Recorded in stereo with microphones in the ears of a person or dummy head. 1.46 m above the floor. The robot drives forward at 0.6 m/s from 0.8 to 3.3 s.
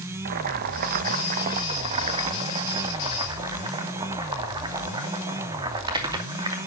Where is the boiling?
50° right (ahead or behind), 1.2 m; by 6.7 s 20° right (ahead or behind), 2.5 m.